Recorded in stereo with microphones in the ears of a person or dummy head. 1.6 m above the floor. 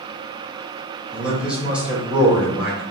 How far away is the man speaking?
About 1.3 m.